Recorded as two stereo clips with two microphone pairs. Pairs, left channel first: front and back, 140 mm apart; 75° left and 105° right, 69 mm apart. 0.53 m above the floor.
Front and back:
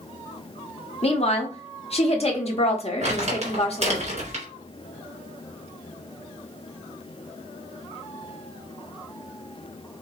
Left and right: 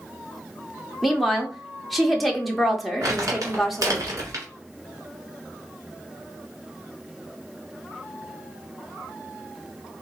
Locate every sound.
1.0 s a woman speaking: 15° right, 0.9 m
3.0 s crumpling: 140° right, 2 m